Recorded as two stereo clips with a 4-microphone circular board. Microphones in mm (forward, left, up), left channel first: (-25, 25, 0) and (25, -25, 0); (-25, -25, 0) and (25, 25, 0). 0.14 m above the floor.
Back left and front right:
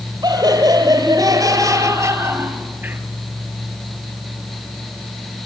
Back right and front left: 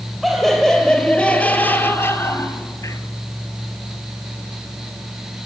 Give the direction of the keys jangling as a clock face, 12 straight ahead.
No keys jangling in this recording.